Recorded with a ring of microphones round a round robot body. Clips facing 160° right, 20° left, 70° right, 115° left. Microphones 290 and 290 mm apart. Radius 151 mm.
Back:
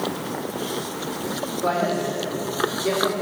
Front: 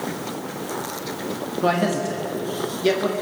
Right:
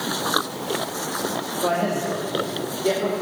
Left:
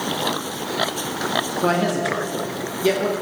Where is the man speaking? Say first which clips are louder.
Front 3 dB, left 3 dB; 60° left, 1.4 m.